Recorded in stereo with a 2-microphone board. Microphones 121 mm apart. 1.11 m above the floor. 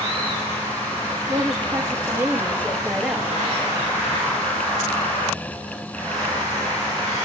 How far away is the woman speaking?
About 2.5 m.